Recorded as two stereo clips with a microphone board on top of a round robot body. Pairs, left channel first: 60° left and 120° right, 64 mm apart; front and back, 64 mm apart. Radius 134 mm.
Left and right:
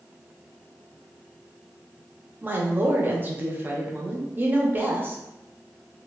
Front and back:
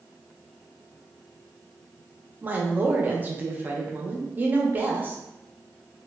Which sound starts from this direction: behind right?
A woman speaking, at 2.4 s.